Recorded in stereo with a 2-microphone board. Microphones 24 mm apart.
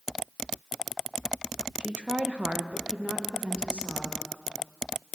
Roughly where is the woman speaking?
Right.